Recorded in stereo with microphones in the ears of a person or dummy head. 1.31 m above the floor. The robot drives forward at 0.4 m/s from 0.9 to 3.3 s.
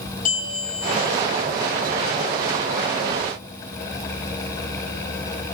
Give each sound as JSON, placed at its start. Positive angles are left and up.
{"t": 0.2, "sound": "a bell", "side_deg": 45, "distance_m": 7.0}